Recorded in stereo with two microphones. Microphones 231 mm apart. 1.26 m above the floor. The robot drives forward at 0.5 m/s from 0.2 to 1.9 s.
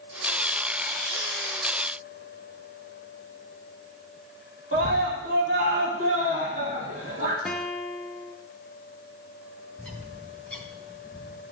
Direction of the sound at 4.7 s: 75° right (ahead or behind).